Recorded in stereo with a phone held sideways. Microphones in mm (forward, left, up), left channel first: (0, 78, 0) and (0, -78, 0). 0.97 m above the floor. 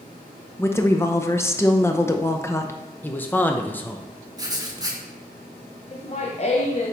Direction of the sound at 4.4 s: 25° right (ahead or behind).